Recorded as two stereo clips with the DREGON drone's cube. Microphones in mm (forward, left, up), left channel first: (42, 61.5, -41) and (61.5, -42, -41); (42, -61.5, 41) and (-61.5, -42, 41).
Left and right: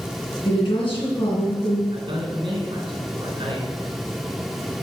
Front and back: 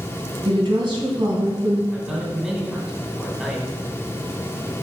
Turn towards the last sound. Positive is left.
turn(degrees=-105)